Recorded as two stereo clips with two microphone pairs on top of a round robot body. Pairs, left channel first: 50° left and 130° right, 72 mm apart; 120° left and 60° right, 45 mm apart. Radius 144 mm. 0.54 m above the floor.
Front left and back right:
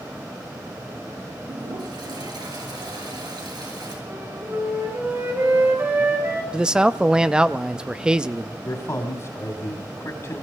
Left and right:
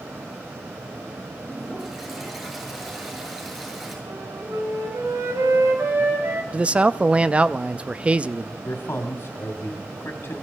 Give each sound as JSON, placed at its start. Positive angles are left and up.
{"t": 1.4, "sound": "a toilet flushing", "azimuth_deg": -145, "distance_m": 7.5}
{"t": 4.1, "sound": "a flute", "azimuth_deg": -70, "distance_m": 3.5}
{"t": 6.5, "sound": "a man speaking", "azimuth_deg": -95, "distance_m": 0.7}
{"t": 8.6, "sound": "a man speaking", "azimuth_deg": 95, "distance_m": 2.5}